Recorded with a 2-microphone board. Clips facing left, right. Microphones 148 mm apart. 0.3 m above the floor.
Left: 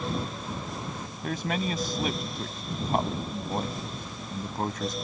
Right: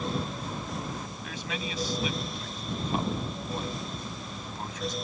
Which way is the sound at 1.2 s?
50° left (ahead or behind).